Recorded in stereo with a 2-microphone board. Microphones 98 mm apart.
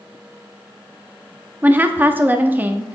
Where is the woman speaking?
20° right (ahead or behind), 0.6 m.